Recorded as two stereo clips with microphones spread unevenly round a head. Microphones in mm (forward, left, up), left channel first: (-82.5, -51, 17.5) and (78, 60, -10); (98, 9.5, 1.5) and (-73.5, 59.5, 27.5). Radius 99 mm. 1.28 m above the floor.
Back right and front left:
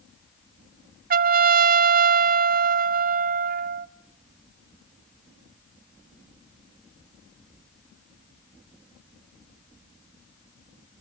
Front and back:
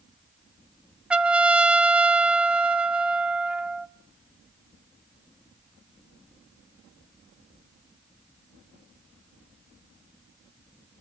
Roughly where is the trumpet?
Left.